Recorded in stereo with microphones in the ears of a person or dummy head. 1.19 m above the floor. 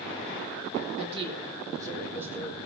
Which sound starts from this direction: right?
A woman speaking, at 1.0 s.